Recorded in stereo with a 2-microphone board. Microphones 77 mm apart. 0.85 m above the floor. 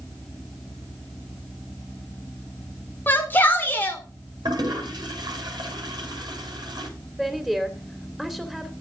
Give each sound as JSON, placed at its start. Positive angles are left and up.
{"t": 3.1, "sound": "a shout", "side_deg": 25, "distance_m": 3.5}
{"t": 4.5, "sound": "a toilet flushing", "side_deg": -70, "distance_m": 6.0}
{"t": 7.2, "sound": "a woman speaking", "side_deg": -5, "distance_m": 2.5}